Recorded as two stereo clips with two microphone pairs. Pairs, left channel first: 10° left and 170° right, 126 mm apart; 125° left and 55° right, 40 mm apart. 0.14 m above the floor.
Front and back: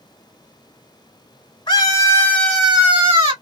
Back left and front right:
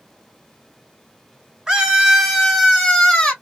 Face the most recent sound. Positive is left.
turn(degrees=180)